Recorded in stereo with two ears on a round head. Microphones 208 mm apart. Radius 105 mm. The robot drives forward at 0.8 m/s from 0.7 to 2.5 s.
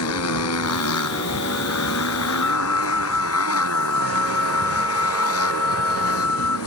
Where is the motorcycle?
75° left (ahead or behind); by 6.7 s 70° left (ahead or behind).